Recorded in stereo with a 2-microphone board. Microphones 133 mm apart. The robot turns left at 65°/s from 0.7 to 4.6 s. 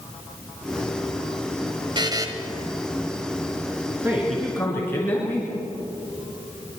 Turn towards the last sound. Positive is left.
turn(degrees=160)